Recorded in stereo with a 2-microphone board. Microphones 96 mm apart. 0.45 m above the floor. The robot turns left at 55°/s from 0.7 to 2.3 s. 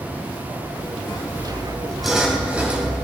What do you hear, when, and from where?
1.1 s sawing: 55° left, 3.5 m; by 3.0 s 15° right, 3.5 m